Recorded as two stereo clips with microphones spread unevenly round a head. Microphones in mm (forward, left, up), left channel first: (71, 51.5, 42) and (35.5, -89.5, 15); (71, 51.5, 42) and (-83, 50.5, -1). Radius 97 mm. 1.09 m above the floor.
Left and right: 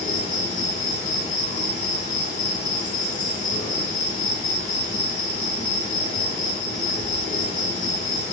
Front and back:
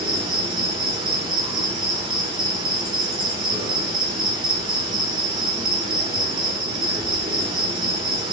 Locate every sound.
0.0 s an insect: 125° left, 4 m